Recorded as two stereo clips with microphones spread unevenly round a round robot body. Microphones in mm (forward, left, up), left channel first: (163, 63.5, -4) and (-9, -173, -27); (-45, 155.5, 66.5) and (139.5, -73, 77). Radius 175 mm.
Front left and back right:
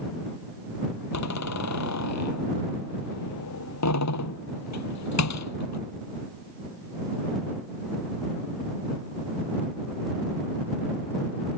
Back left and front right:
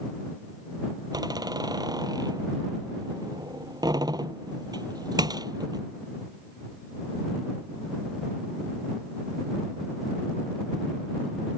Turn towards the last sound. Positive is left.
turn(degrees=25)